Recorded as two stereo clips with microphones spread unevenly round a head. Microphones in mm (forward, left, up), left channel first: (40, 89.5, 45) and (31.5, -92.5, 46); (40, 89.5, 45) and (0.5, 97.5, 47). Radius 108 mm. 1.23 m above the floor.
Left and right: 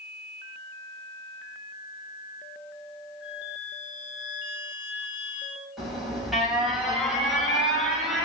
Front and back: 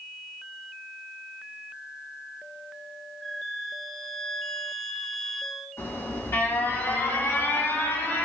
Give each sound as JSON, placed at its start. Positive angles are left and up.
{"t": 3.2, "sound": "a flute", "azimuth_deg": 70, "distance_m": 1.3}
{"t": 5.8, "sound": "an alarm", "azimuth_deg": -5, "distance_m": 8.5}